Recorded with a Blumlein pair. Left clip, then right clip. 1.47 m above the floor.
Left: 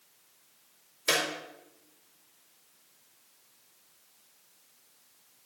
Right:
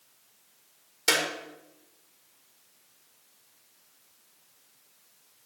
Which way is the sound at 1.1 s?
35° right.